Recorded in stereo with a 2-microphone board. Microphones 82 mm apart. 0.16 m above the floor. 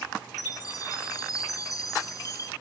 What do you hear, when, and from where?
0.4 s a chime: 45° left (ahead or behind), 1.0 m